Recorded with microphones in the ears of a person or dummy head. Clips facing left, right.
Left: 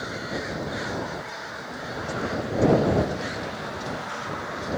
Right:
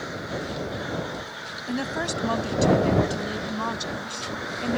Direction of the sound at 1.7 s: 85° right.